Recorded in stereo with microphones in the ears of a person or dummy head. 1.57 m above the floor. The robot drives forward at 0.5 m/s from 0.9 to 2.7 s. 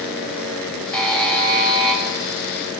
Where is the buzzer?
10° left (ahead or behind), 7 m.